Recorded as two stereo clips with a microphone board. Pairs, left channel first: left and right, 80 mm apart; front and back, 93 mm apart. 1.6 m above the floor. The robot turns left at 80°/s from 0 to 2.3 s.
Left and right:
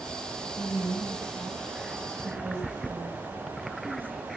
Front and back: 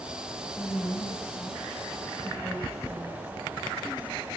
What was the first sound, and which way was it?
A woman speaking, 80° left.